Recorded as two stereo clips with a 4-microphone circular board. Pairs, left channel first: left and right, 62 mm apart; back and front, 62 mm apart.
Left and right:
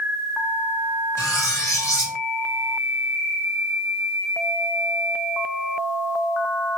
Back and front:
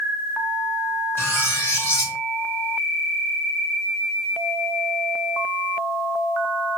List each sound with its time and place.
1.2 s cutlery clinking: 125° left, 2.5 m